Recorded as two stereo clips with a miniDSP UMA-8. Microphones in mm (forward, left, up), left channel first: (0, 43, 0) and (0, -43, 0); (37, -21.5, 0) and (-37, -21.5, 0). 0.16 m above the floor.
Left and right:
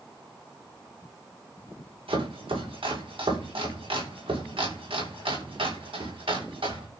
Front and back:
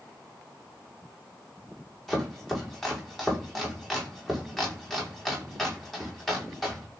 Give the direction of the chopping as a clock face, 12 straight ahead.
3 o'clock.